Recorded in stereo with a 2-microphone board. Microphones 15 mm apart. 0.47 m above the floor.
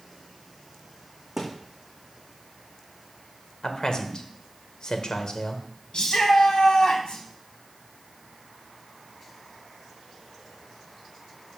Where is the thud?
30° right (ahead or behind), 2.5 m.